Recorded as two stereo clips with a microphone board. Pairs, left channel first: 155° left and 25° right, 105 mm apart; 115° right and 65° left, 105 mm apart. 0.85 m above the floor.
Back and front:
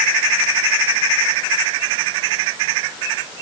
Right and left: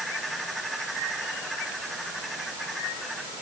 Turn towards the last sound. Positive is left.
No sound to turn to.